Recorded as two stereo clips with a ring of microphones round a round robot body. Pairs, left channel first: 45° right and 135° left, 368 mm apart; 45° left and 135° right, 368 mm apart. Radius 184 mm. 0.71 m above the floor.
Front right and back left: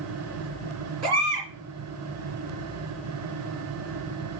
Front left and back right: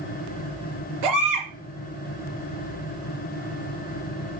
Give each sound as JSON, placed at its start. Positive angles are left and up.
{"t": 1.0, "sound": "a baby crying", "azimuth_deg": -175, "distance_m": 4.5}